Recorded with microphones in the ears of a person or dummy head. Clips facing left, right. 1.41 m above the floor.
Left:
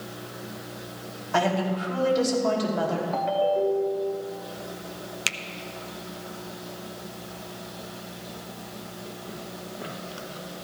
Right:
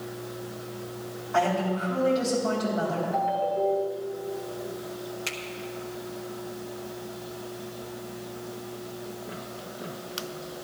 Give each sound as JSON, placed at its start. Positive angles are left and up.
{"t": 1.3, "sound": "a woman speaking", "side_deg": 85, "distance_m": 4.5}
{"t": 3.1, "sound": "a ringtone", "side_deg": 80, "distance_m": 1.9}
{"t": 5.3, "sound": "a finger snap", "side_deg": 70, "distance_m": 0.7}